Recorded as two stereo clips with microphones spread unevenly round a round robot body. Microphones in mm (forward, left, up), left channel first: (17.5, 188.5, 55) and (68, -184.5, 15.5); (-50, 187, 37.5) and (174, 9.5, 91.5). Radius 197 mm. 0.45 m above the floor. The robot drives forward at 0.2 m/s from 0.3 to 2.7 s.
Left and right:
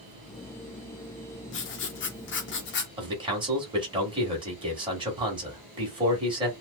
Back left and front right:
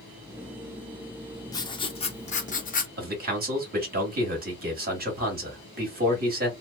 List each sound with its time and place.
1.5 s writing: 120° left, 0.6 m; by 2.9 s 150° left, 0.7 m
3.0 s a man speaking: 55° right, 1.3 m